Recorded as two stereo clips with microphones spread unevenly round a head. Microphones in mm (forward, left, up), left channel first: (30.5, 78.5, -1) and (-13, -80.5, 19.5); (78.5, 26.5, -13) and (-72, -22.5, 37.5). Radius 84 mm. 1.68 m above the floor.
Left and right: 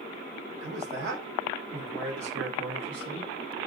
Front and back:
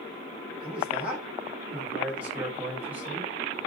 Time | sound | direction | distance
0.6 | a man speaking | 80° right | 8 m